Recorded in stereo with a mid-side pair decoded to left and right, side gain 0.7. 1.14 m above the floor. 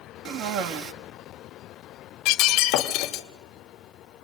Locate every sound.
0.2 s a cough: 65° right, 2 m
2.2 s breaking glass: 65° left, 1.8 m